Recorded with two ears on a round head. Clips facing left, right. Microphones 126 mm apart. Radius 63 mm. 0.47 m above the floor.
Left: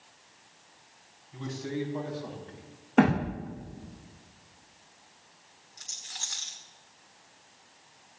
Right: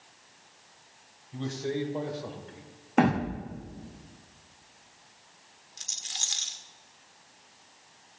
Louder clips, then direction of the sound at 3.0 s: Left 1 dB; 5° right (ahead or behind).